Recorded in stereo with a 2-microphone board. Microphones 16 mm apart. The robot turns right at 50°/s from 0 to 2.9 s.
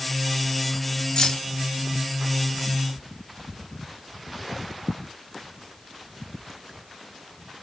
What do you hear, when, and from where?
1.2 s keys jangling: 60° left (ahead or behind), 1.0 m; by 1.4 s 75° left (ahead or behind), 1.0 m